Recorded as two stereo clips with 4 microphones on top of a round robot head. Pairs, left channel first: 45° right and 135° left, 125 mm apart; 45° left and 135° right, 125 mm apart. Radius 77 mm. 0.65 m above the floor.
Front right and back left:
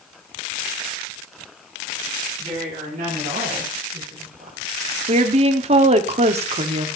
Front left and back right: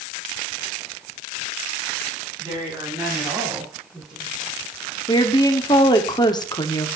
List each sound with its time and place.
2.4 s a woman speaking: 170° left, 5.5 m; by 4.6 s 145° left, 5 m
5.1 s a woman speaking: 100° left, 1.3 m